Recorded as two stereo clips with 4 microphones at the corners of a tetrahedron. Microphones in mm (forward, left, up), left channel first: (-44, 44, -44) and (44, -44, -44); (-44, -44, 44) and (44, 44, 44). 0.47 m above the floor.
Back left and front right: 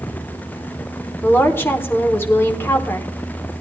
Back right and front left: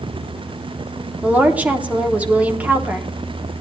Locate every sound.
1.2 s a woman speaking: 100° left, 1.1 m